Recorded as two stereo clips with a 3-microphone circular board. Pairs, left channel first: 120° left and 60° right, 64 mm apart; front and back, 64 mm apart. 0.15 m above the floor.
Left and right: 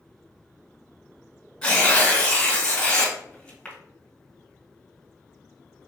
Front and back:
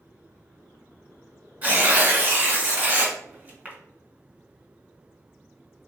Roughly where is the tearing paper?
Behind.